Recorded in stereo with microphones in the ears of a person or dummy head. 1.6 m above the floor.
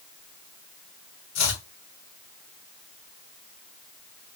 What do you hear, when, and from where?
1.4 s chopping: 70° left (ahead or behind), 1.5 m